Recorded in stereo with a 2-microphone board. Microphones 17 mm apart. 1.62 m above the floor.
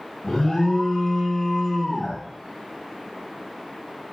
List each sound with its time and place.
0.2 s an alarm: 60° left (ahead or behind), 3.5 m